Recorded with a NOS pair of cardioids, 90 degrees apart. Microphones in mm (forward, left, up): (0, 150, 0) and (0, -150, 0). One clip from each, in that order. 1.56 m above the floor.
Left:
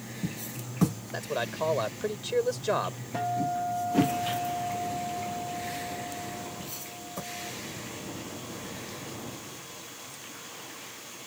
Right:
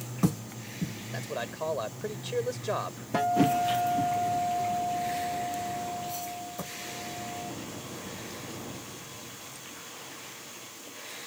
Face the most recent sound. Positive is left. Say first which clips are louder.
# right 5 dB
turn(degrees=-45)